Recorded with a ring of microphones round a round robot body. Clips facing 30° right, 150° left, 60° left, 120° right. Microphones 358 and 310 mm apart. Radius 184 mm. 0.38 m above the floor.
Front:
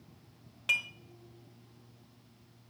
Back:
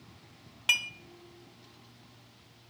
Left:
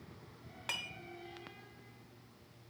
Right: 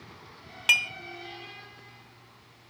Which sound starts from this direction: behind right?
Dishes clattering, at 0.7 s.